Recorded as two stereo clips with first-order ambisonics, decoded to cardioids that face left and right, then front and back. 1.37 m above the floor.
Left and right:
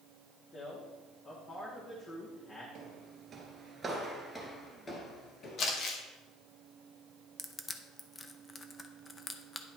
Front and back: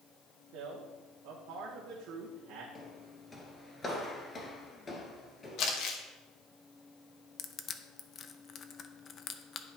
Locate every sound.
0.5 s a man speaking: 155° left, 1.4 m
2.8 s footsteps: 70° right, 1.5 m; by 5.6 s 65° left, 1.5 m
5.6 s crumpling: 40° left, 1.4 m
7.4 s crushing: 25° left, 0.5 m